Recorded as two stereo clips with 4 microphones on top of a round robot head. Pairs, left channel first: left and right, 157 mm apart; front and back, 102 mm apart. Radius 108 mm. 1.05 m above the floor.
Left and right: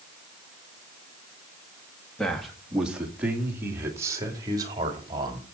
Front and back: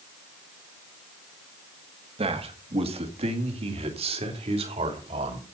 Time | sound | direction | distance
2.2 | a man speaking | 175° left | 2 m